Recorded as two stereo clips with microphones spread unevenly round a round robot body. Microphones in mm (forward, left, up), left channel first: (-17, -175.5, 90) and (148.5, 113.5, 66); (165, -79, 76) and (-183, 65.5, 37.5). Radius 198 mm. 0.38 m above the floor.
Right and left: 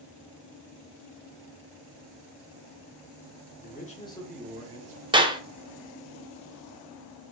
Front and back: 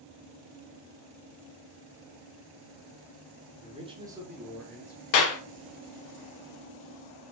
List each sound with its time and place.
3.6 s a man speaking: 155° right, 1.4 m; by 5.0 s 55° left, 1.4 m
5.1 s a clap: 5° right, 0.9 m